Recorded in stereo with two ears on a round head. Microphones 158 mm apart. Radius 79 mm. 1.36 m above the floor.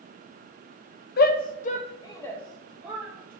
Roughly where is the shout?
Left.